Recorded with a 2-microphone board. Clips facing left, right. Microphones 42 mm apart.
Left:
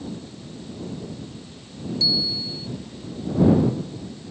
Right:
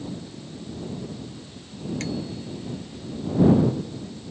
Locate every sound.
2.0 s a bicycle bell: 55° right (ahead or behind)